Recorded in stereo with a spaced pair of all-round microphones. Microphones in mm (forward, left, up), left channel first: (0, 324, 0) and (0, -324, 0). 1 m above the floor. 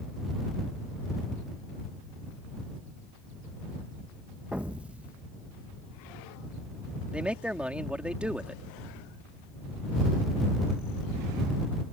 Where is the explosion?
Centre (ahead or behind).